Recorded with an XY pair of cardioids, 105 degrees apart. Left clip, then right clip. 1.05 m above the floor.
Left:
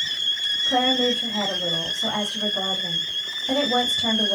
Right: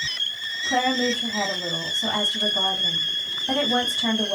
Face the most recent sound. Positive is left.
turn(degrees=-20)